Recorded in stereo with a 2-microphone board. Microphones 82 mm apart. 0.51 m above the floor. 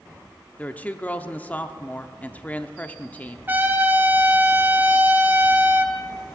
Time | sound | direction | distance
0.6 | a woman speaking | 20° left (ahead or behind) | 0.6 m
3.5 | a trumpet | 25° right (ahead or behind) | 1.0 m